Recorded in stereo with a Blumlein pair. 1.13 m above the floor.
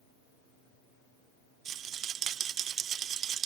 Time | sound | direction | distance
1.6 | a rattle | 30° right | 0.6 m